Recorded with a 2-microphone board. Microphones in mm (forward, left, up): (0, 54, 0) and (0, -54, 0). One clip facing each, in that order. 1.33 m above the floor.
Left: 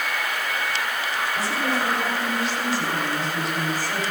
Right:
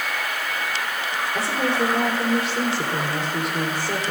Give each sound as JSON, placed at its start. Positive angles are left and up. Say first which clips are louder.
{"t": 1.4, "sound": "a woman speaking", "louder": "right 4 dB", "side_deg": -65, "distance_m": 5.5}